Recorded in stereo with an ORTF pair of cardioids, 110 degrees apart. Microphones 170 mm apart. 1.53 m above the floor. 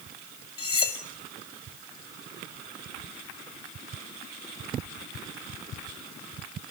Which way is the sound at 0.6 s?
35° left.